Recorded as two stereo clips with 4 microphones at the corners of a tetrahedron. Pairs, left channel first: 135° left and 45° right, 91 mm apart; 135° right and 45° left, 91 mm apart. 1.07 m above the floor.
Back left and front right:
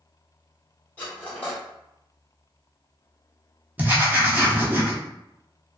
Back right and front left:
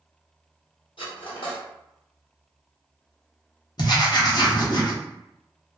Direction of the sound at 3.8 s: 115° right.